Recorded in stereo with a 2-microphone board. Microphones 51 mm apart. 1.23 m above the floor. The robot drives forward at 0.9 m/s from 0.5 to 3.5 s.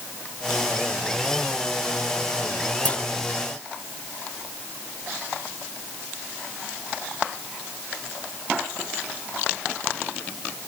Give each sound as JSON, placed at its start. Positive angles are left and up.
{"t": 2.9, "sound": "a clunk", "side_deg": 30}